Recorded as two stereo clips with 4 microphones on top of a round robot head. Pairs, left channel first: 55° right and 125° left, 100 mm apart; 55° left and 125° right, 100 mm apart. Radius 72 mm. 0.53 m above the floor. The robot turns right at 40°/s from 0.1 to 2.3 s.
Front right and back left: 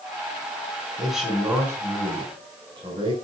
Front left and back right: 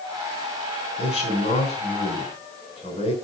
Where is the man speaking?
30° left, 4 m; by 3.1 s 85° left, 4 m.